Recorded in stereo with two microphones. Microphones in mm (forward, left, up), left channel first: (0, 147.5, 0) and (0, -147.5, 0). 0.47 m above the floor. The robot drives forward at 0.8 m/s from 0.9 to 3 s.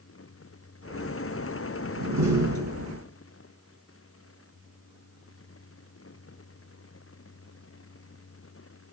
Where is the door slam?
75° right (ahead or behind), 3.5 m; by 3.0 s 80° right, 3.5 m.